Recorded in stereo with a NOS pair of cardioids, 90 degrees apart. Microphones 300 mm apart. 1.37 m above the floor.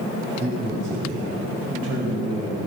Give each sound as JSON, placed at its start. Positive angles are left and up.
{"t": 0.4, "sound": "a man speaking", "azimuth_deg": -40, "distance_m": 5.0}